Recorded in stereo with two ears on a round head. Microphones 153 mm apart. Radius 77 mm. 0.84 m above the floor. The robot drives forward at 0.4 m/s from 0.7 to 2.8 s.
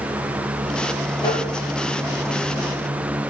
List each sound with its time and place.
1.2 s tapping: 25° left (ahead or behind), 10 m